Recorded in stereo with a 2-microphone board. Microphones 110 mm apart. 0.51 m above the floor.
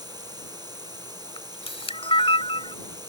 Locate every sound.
0.0 s running water: 40° right (ahead or behind)
1.4 s a camera shutter: 60° left (ahead or behind)